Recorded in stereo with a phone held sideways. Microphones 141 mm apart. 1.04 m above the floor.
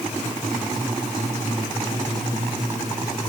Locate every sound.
Only background noise.